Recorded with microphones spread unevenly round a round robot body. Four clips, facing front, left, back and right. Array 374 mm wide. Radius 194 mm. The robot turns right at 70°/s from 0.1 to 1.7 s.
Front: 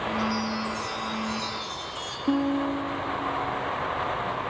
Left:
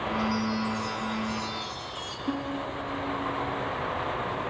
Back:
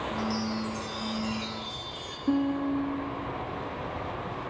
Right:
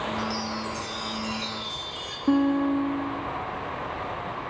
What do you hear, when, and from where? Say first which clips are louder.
0.2 s a chime: left 2 dB, front 3 dB; 170° right, 3 m; by 2.2 s 65° right, 3 m
2.3 s a guitar: right 11 dB, front 2 dB; 60° right, 1.2 m